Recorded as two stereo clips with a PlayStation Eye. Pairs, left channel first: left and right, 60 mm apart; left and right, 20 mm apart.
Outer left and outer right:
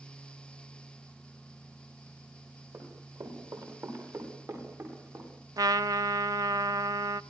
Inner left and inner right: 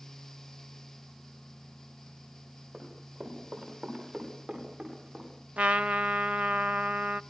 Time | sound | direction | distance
2.7 | running footsteps | 70° right (ahead or behind) | 9.5 m
5.6 | a trumpet | 75° right (ahead or behind) | 0.7 m